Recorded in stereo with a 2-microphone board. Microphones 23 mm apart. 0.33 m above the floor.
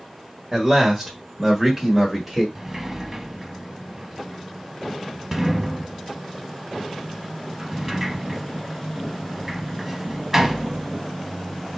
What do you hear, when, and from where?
0.5 s a man speaking: 15° right (ahead or behind), 1.2 m; by 2.5 s 5° right (ahead or behind), 1.4 m
2.5 s a sliding door: 15° right (ahead or behind), 0.6 m